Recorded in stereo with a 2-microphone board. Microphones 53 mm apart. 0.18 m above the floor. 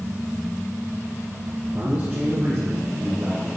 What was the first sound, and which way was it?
A man speaking, 30° right (ahead or behind).